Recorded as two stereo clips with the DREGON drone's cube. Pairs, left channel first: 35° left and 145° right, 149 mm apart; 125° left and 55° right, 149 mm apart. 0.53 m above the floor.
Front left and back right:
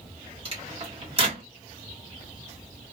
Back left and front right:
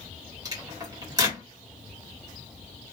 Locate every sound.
0.5 s a microwave: 115° right, 1.3 m